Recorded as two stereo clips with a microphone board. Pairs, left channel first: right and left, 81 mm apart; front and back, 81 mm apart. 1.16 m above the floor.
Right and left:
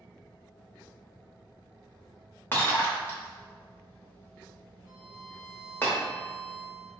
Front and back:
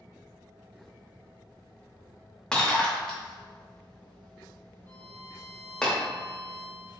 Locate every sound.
2.5 s breaking glass: 70° right, 0.9 m
4.9 s a violin: 10° left, 1.1 m